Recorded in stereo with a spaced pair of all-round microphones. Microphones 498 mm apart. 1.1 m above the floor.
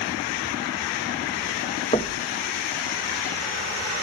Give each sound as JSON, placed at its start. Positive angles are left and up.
{"t": 1.9, "sound": "knocking", "side_deg": 10, "distance_m": 1.1}